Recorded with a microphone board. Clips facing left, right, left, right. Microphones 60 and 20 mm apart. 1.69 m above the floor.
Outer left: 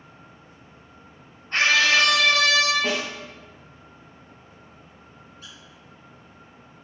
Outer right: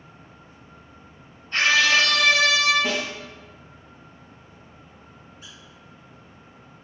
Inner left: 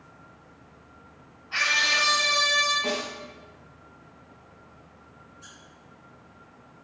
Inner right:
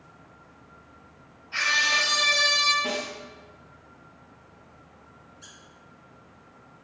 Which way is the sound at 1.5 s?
50° left (ahead or behind).